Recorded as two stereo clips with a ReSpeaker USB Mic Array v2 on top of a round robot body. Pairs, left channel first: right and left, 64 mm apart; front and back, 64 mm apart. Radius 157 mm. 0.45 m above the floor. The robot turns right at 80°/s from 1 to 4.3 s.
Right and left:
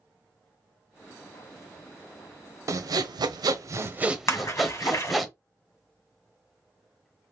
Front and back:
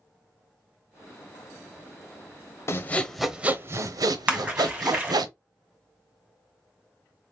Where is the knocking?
I don't hear knocking.